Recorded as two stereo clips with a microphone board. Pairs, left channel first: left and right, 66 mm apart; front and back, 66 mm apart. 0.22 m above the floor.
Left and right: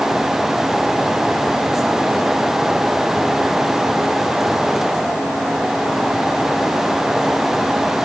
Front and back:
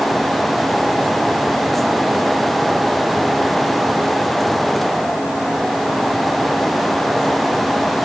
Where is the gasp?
No gasp in this recording.